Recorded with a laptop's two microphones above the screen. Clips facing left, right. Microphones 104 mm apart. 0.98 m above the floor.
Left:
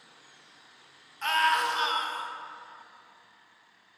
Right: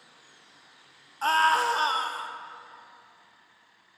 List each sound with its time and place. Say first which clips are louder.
1.2 s a scream: right 3 dB; 35° right (ahead or behind), 0.7 m